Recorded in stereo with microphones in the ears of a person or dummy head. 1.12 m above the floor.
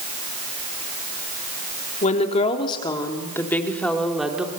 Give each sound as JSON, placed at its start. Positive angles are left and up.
{"t": 2.0, "sound": "a woman speaking", "side_deg": 40, "distance_m": 3.5}